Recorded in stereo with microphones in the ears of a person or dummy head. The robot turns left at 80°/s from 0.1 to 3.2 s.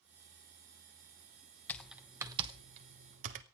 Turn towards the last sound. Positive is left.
turn(degrees=-40)  # may be behind; listen again after turning